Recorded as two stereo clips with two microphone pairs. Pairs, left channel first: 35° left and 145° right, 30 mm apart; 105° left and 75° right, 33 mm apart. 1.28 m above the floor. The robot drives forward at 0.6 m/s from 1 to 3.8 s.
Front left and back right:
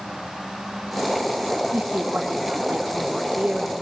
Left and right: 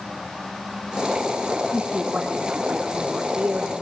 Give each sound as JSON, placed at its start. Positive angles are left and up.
{"t": 1.7, "sound": "a woman speaking", "azimuth_deg": -130, "distance_m": 3.5}